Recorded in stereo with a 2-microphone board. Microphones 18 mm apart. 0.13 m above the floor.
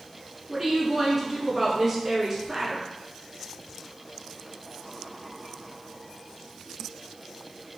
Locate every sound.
0.5 s a woman speaking: 15° right (ahead or behind), 1.2 m